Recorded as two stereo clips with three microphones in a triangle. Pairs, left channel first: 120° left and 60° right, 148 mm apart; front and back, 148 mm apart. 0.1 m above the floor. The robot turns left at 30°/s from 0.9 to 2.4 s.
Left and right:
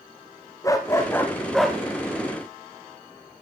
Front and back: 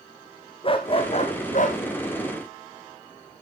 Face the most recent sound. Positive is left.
turn(degrees=5)